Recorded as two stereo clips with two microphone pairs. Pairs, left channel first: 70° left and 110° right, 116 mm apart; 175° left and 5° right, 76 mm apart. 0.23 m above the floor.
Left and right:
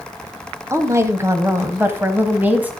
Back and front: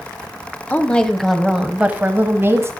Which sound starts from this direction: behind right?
A woman speaking, at 0.7 s.